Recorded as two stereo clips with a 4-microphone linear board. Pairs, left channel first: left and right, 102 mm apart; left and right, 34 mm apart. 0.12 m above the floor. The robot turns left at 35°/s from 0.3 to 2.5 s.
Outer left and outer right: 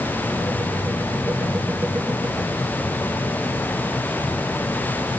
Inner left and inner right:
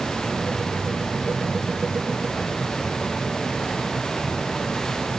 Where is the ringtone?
No ringtone in this recording.